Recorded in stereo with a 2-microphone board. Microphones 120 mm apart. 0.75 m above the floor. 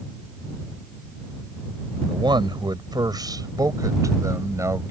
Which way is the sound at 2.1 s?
40° right (ahead or behind).